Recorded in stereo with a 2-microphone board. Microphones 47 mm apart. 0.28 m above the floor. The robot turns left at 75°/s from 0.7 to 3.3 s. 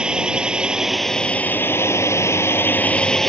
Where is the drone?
160° right; by 3.3 s 5° left.